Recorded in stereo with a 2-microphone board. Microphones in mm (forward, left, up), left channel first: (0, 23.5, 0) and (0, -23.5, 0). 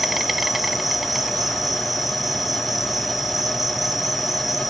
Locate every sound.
0.0 s an insect: 5° right (ahead or behind), 1.0 m